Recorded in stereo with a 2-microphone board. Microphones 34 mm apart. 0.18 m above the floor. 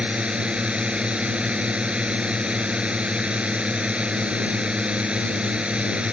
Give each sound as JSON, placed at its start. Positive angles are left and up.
{"t": 0.0, "sound": "a drone", "side_deg": -35}